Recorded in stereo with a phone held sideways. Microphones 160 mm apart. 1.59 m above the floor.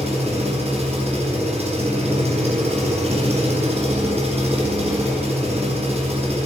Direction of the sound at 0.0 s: 40° right (ahead or behind).